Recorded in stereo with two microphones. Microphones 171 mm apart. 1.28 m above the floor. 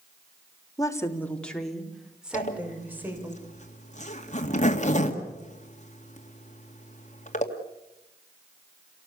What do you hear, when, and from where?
0.8 s a woman speaking: 20° left (ahead or behind), 2.5 m; by 3.3 s 15° right (ahead or behind), 6 m
2.3 s a zipper: 45° left (ahead or behind), 2 m